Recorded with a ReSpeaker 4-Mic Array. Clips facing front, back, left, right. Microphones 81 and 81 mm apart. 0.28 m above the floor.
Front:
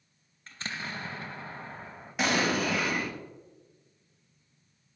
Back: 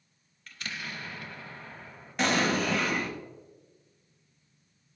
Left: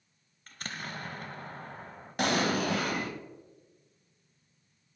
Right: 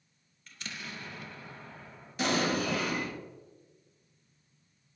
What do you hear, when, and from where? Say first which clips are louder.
0.5 s an explosion: front 2 dB, left 3 dB; 55° left, 0.6 m
2.2 s an explosion: back 1 dB, left 1 dB; 85° left, 1.2 m